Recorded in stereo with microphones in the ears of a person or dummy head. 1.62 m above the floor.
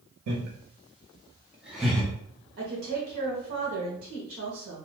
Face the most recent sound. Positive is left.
turn(degrees=-55)  # may be behind; listen again after turning